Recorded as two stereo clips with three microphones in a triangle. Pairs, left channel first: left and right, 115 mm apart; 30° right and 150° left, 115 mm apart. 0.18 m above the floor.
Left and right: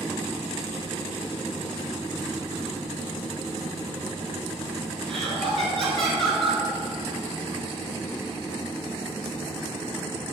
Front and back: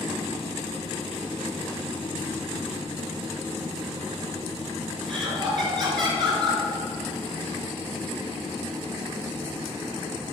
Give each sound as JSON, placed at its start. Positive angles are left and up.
{"t": 5.1, "sound": "laughter", "azimuth_deg": 180, "distance_m": 1.7}